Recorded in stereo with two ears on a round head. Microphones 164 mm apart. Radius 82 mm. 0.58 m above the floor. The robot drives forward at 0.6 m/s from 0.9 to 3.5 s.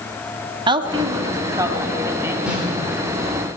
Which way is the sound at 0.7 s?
25° right (ahead or behind).